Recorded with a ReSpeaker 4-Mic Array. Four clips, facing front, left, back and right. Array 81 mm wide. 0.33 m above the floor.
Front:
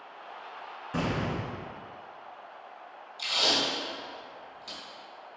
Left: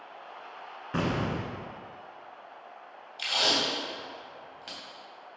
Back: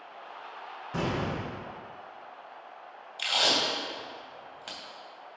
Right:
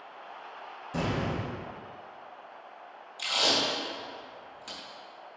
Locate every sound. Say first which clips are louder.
0.9 s an explosion: left 1 dB, even; 85° left, 1.4 m
3.2 s tape being pulled: even, back 1 dB; 150° left, 2.5 m